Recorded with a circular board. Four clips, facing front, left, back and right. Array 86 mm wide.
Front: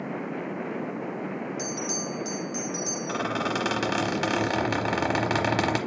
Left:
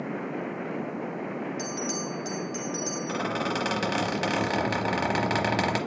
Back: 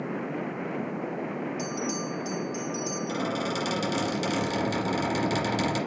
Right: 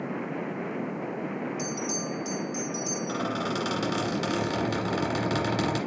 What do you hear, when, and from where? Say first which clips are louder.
1.6 s a bell: even, back 1 dB; 55° left, 1.7 m
3.1 s a squeak: left 1 dB, front 3 dB; 40° left, 1.0 m